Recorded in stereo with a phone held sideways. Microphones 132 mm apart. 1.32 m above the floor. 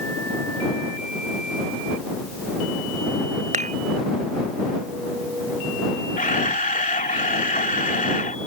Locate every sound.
3.5 s dishes clattering: 70° right (ahead or behind)
6.2 s a camera shutter: 80° left